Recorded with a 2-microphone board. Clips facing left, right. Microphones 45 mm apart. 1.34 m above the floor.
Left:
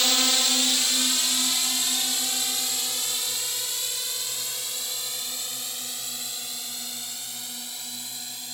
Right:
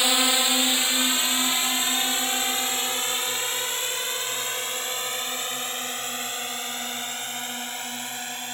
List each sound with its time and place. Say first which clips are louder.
0.0 s a drone: right 2 dB; 20° right (ahead or behind); by 8.5 s 45° right (ahead or behind)